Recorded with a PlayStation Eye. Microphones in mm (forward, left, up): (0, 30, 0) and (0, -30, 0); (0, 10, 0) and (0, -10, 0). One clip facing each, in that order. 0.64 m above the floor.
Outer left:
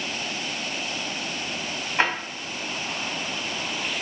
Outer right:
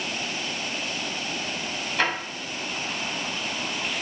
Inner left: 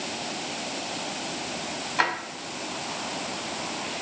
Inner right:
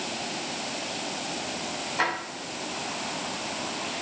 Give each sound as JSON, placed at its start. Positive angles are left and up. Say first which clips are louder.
{"t": 2.0, "sound": "a drawer", "louder": "outer left 2 dB, inner left 2 dB", "side_deg": 25, "distance_m": 1.1}